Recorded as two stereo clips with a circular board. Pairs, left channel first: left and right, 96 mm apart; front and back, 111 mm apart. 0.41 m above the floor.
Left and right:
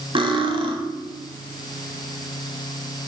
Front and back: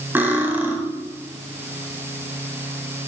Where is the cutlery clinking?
110° right, 1.4 m.